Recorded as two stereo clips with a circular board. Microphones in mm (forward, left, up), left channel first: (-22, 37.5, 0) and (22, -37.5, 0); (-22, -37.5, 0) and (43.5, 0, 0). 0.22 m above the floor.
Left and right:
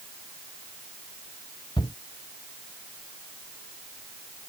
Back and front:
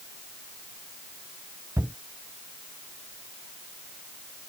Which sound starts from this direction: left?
A shout, at 1.8 s.